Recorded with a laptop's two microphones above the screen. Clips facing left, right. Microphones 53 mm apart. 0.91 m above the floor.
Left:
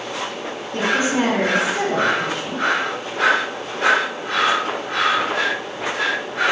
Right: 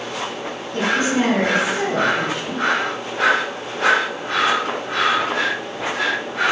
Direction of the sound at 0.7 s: 50° left (ahead or behind).